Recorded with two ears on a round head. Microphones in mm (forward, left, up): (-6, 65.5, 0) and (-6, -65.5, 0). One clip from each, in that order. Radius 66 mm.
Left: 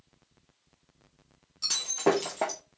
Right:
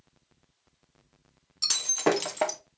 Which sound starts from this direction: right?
Breaking glass, at 1.6 s.